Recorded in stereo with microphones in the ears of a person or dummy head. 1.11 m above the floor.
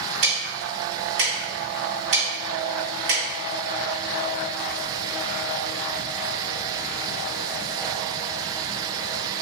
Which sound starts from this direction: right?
Ticking, at 0.2 s.